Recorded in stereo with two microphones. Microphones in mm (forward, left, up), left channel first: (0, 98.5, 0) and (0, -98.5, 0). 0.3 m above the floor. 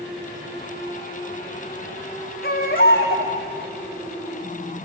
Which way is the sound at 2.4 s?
50° left (ahead or behind).